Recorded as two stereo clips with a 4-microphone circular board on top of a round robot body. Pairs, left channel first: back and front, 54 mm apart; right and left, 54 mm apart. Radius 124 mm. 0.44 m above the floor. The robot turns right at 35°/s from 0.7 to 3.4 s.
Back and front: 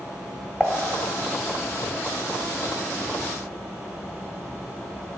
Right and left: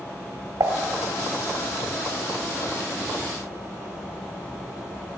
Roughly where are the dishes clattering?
Left.